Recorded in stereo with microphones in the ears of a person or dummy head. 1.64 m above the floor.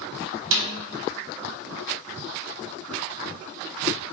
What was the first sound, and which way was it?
A snare drum, 85° right.